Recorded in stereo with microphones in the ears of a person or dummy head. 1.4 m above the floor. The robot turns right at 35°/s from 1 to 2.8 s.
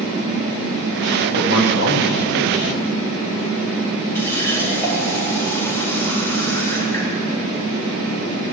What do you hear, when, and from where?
1.3 s a man speaking: 60° left, 4 m; by 2.9 s 110° left, 4 m
4.2 s a running tap: 10° left (ahead or behind), 5 m